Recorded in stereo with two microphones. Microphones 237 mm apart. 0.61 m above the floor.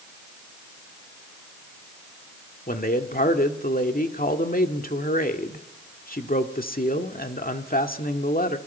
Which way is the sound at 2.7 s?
35° left (ahead or behind).